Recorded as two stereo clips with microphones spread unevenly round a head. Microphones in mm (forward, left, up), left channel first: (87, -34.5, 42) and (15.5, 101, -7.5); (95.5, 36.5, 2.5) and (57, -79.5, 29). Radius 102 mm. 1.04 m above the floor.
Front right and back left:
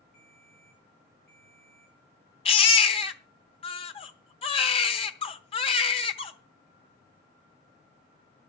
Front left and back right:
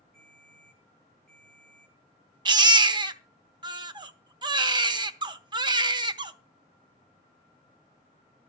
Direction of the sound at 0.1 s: 150° right.